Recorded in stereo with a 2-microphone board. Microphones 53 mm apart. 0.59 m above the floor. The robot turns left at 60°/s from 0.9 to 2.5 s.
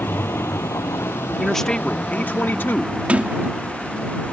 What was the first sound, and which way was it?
A vehicle, 45° left (ahead or behind).